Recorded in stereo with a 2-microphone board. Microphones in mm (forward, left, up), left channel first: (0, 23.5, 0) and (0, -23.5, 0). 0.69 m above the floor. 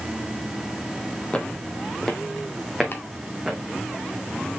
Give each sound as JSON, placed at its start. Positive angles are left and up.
{"t": 1.3, "sound": "footsteps", "side_deg": 20, "distance_m": 1.3}
{"t": 2.9, "sound": "chopping", "side_deg": 45, "distance_m": 1.8}